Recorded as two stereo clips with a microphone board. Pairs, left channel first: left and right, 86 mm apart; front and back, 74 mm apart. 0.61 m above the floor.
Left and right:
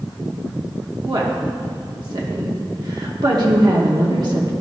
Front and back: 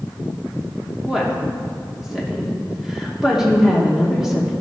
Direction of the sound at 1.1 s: 100° right.